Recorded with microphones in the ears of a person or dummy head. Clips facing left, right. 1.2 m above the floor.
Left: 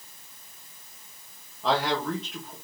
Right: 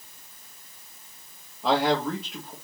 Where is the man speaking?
5° right (ahead or behind), 1.0 m.